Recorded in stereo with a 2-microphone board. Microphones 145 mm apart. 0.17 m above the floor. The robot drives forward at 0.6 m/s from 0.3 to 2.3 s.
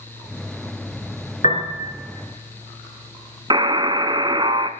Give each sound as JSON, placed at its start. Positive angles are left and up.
{"t": 1.4, "sound": "a piano", "side_deg": 55, "distance_m": 2.5}
{"t": 3.5, "sound": "a buzzer", "side_deg": -35, "distance_m": 0.7}